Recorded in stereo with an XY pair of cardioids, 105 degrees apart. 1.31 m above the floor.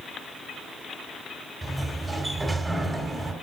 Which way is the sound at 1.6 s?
10° right.